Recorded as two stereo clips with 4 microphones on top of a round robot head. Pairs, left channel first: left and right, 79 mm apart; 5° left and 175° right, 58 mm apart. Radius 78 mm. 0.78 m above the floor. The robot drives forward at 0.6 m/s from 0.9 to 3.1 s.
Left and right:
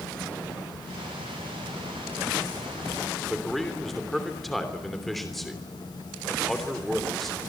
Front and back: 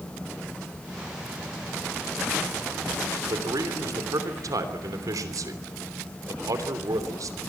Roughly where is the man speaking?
Behind.